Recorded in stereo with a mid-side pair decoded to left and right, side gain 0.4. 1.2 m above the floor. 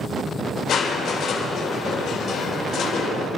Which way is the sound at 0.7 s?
70° left.